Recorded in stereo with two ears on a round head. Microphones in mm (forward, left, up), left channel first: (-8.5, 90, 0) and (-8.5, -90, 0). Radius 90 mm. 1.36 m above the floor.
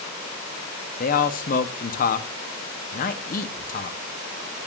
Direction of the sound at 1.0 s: 40° left (ahead or behind).